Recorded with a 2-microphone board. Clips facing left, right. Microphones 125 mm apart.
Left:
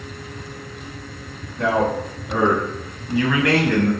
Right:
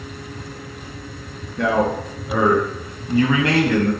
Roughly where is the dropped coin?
I don't hear a dropped coin.